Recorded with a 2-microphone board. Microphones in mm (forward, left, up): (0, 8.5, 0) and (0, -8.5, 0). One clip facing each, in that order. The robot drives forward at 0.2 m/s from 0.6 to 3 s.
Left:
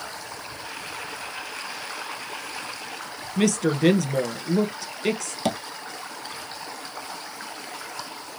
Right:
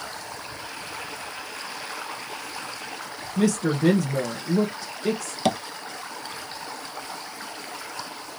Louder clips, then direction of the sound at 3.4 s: Left 1 dB; 45° left (ahead or behind).